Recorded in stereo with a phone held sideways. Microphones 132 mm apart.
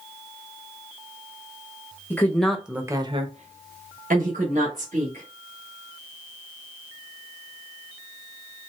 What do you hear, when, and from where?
2.1 s a woman speaking: 15° left (ahead or behind), 1.1 m; by 5.2 s 70° right (ahead or behind), 2 m